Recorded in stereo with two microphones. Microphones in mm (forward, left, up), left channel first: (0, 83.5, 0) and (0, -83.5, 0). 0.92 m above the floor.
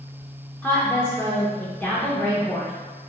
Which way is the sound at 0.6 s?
10° left (ahead or behind).